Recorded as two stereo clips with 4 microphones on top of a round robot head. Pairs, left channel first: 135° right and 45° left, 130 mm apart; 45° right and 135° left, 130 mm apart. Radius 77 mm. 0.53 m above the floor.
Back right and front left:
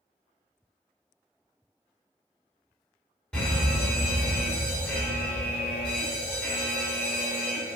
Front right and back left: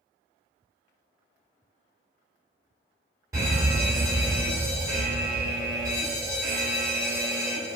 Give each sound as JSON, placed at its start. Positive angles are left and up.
{"t": 3.3, "sound": "a fire alarm", "azimuth_deg": 155, "distance_m": 1.6}